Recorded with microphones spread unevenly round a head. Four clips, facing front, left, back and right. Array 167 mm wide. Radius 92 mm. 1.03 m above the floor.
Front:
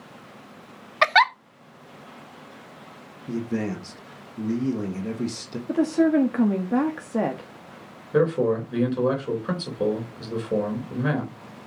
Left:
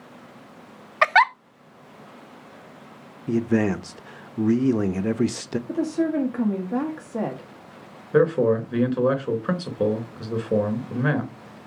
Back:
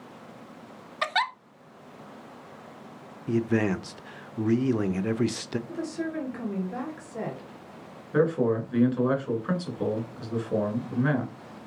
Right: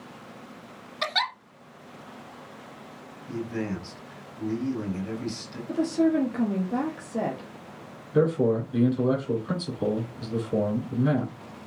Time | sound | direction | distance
1.0 | a giggle | 50° left | 0.7 m
3.3 | a man speaking | 105° left | 1.0 m
5.7 | a woman speaking | 20° left | 1.7 m
8.1 | a man speaking | 75° left | 4 m